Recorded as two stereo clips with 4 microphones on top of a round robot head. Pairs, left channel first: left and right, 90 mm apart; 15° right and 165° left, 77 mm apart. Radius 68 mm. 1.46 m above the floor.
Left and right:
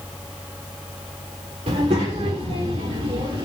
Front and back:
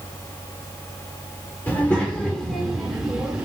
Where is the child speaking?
85° right, 2.5 m; by 3.5 s 115° right, 2.5 m.